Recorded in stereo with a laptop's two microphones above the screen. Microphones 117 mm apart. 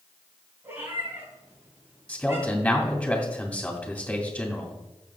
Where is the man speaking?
5° left (ahead or behind), 2 m.